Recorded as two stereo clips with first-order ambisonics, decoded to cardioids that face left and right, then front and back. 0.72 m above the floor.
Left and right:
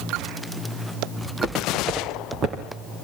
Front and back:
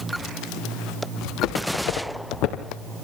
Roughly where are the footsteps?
Ahead.